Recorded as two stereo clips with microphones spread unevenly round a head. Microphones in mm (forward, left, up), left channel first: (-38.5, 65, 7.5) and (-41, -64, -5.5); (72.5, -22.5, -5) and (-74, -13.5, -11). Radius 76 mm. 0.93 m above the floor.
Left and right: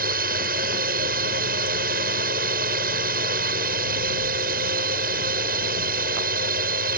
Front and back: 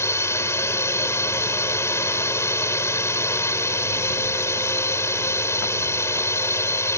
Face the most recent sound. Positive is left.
turn(degrees=-75)